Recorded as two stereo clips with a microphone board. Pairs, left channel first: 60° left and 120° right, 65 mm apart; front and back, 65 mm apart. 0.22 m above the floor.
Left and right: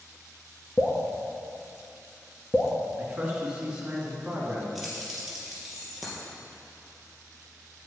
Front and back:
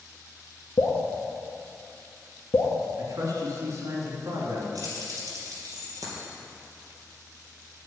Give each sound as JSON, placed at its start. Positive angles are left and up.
{"t": 0.8, "sound": "dripping", "azimuth_deg": 0, "distance_m": 1.6}
{"t": 3.0, "sound": "a man speaking", "azimuth_deg": 165, "distance_m": 3.0}
{"t": 4.8, "sound": "keys jangling", "azimuth_deg": 155, "distance_m": 3.0}